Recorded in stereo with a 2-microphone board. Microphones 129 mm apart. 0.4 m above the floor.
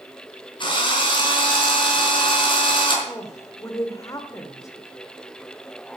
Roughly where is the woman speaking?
Left.